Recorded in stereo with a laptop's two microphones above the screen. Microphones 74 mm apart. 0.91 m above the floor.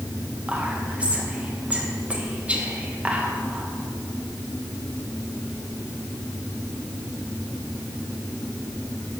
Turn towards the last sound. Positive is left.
turn(degrees=-15)  # may be behind; listen again after turning